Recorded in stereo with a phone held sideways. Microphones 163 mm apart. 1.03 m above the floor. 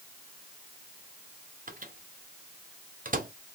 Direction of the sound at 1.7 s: 55° right (ahead or behind).